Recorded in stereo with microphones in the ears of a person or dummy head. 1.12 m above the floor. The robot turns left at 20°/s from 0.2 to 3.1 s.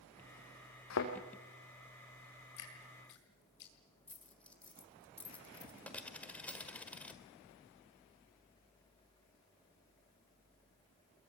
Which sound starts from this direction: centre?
A dropped coin, at 4.1 s.